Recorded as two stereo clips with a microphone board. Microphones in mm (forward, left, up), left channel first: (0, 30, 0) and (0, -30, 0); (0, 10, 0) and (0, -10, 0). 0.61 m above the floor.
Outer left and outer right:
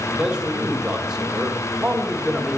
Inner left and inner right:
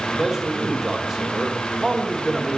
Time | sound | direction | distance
0.1 | a man speaking | 10° right (ahead or behind) | 1.8 m